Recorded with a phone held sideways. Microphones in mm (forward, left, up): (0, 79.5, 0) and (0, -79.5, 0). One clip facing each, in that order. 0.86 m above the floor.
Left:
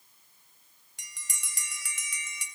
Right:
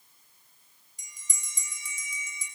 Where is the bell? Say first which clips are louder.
Left 3 dB; 75° left (ahead or behind), 3 m.